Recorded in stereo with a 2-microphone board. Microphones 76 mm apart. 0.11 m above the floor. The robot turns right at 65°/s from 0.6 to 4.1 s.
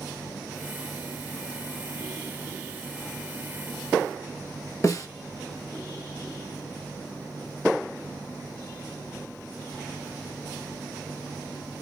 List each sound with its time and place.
4.8 s a snare drum: 40° left (ahead or behind), 1.9 m